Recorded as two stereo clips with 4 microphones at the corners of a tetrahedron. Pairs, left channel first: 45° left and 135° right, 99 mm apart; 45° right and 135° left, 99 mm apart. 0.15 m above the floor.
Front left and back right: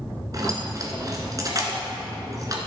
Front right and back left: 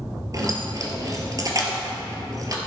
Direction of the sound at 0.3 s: Straight behind.